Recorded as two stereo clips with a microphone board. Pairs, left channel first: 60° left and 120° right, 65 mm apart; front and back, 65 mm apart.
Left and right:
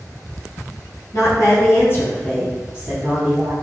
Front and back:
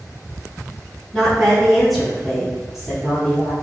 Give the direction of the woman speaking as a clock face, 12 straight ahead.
9 o'clock.